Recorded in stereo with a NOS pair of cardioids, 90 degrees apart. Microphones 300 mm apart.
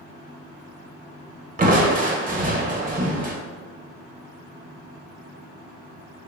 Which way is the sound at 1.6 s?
30° right.